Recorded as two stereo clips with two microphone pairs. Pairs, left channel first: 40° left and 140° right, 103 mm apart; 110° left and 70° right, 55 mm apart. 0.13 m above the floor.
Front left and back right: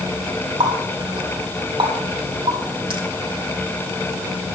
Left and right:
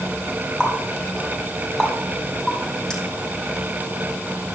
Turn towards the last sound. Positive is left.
turn(degrees=-170)